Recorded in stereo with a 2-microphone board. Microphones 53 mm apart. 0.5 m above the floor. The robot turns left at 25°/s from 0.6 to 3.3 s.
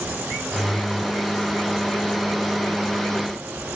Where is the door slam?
I don't hear a door slam.